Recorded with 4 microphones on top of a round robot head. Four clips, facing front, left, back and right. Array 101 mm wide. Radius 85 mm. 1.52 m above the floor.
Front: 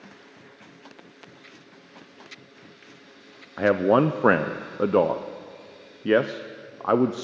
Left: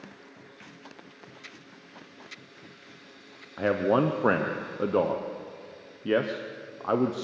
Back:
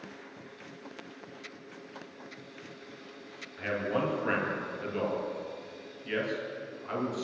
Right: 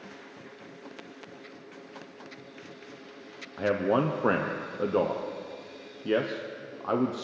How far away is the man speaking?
About 0.9 m.